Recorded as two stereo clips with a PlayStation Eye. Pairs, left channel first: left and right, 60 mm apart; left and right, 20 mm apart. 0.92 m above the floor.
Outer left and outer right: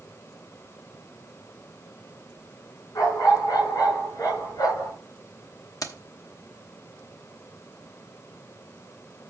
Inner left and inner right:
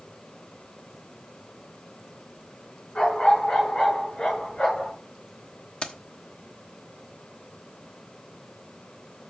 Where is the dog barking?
80° left, 5 m; by 4.9 s 85° left, 6 m.